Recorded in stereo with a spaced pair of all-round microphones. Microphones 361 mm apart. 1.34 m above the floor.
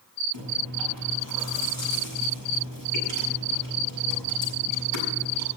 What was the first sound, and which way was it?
Chewing, 80° right.